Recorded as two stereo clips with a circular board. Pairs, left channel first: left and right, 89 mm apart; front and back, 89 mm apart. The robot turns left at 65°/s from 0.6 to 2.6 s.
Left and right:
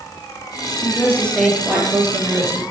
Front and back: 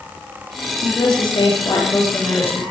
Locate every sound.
0.8 s a woman speaking: 40° left, 3.5 m; by 2.6 s 75° right, 3.5 m